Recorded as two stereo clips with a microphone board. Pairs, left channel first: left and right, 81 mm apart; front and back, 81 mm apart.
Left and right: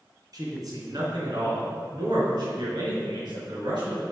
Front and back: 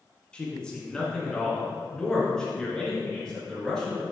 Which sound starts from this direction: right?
A man speaking, at 0.3 s.